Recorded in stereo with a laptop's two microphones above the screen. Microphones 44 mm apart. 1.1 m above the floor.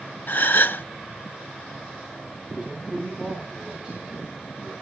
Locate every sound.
0.3 s a gasp: 55° left (ahead or behind), 0.7 m
2.5 s a man speaking: 20° right (ahead or behind), 7 m